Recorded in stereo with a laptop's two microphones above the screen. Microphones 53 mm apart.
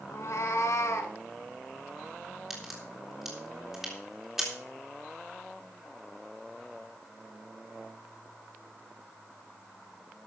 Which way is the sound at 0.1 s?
60° left (ahead or behind).